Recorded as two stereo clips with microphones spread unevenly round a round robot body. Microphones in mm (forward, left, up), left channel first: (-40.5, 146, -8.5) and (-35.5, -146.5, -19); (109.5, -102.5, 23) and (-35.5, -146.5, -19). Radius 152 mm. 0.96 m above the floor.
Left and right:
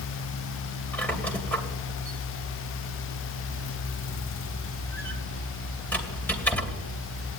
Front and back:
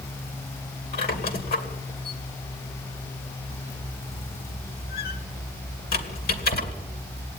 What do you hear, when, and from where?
0.9 s a squeak: 5° left, 2.5 m